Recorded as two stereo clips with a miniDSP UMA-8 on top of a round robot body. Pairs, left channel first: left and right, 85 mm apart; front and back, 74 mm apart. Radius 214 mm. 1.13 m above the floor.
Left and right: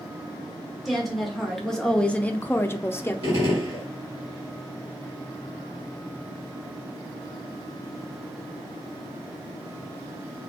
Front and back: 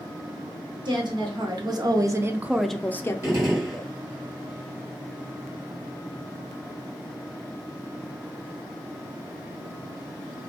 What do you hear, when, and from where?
0.8 s a woman speaking: straight behind, 1.1 m; by 3.5 s 25° left, 0.7 m
3.2 s a gunshot: 130° right, 1.0 m